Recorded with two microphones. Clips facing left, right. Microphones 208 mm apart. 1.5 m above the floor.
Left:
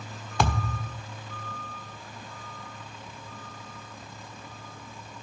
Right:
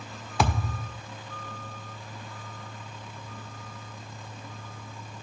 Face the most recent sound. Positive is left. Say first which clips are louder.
# even
turn(degrees=-5)  # may be behind; listen again after turning